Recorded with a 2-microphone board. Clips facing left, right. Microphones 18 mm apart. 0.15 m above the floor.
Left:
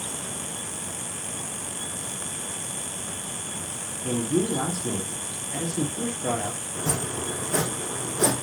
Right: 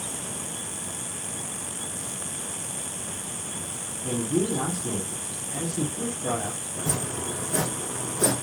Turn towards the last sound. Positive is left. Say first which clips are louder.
# left 1 dB
turn(degrees=65)  # may be behind; listen again after turning